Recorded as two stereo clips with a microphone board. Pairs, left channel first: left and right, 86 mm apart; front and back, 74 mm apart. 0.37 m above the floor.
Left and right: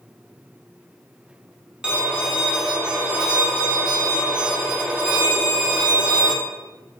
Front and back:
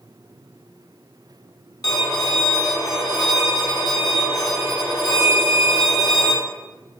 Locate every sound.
1.8 s a violin: 10° right, 0.7 m